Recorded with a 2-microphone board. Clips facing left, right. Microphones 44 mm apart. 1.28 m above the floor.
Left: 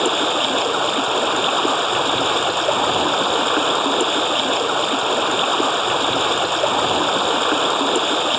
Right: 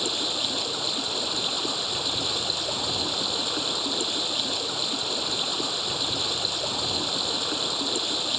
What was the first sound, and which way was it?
Running water, 50° left (ahead or behind).